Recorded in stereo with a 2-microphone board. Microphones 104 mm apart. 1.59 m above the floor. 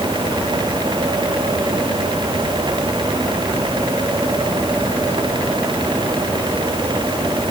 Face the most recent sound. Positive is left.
No sound to turn to.